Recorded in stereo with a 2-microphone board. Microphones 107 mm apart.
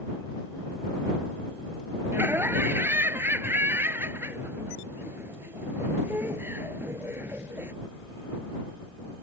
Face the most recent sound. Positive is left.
turn(degrees=-20)  # may be behind; listen again after turning